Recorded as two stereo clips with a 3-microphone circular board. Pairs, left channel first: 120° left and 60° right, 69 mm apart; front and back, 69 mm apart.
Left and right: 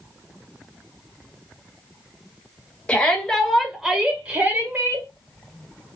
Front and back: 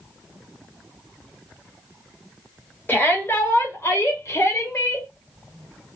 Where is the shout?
50° left, 1.8 m; by 5.1 s 25° right, 1.7 m.